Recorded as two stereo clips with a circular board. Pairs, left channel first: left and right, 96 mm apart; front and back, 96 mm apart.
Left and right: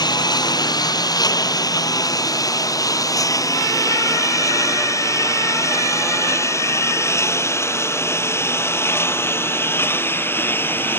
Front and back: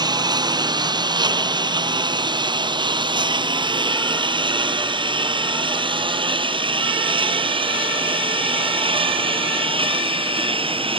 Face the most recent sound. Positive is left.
turn(degrees=160)